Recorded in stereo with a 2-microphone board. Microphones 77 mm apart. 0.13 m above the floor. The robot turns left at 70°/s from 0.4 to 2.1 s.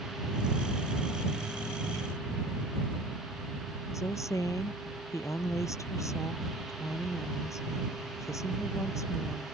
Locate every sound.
3.9 s a woman speaking: 40° left (ahead or behind)